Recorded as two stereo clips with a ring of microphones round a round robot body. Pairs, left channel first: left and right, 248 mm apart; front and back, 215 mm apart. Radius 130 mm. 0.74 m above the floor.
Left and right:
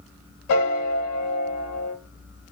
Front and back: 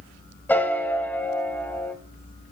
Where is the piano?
80° left, 0.8 m.